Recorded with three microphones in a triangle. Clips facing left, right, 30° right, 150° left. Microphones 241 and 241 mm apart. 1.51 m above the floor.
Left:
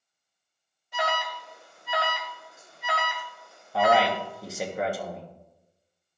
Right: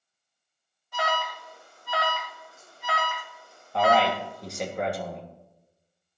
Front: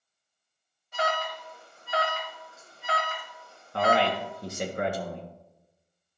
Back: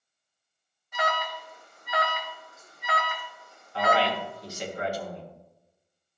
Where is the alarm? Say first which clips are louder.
Even, front 1 dB; 20° left, 1.5 m.